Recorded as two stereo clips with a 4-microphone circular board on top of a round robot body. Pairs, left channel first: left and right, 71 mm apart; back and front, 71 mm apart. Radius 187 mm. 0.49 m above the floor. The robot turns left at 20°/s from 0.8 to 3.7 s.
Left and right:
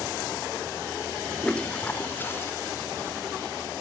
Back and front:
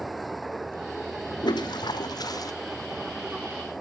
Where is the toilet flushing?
170° left, 1.6 m; by 2.5 s 150° left, 1.6 m.